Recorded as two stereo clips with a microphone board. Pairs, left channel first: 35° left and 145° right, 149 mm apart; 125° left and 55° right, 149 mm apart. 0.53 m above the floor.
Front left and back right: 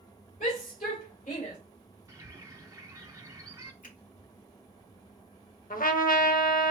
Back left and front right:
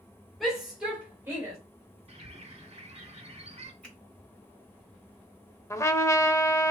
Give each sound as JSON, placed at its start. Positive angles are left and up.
{"t": 0.4, "sound": "a shout", "azimuth_deg": 35, "distance_m": 2.0}
{"t": 2.1, "sound": "a bird", "azimuth_deg": -85, "distance_m": 1.1}
{"t": 3.8, "sound": "a finger snap", "azimuth_deg": 40, "distance_m": 3.0}
{"t": 5.7, "sound": "a trumpet", "azimuth_deg": 55, "distance_m": 0.6}